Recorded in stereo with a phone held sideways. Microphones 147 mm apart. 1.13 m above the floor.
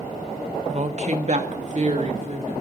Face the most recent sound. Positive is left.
turn(degrees=-50)  # may be behind; listen again after turning